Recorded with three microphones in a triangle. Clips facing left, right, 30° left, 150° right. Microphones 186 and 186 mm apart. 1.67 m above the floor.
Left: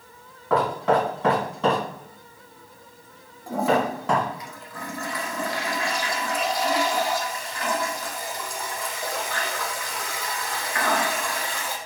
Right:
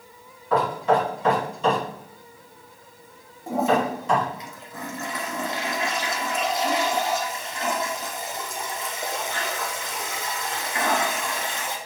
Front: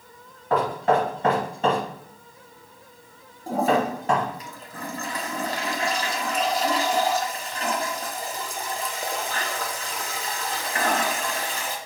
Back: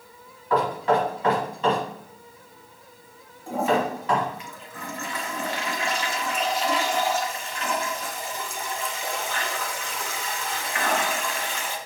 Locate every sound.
0.5 s knocking: 70° left, 2.5 m
3.5 s a toilet flushing: 25° right, 0.7 m